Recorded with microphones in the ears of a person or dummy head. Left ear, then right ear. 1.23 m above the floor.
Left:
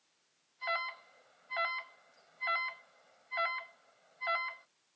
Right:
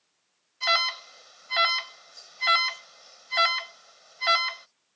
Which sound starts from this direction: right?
An alarm, at 0.6 s.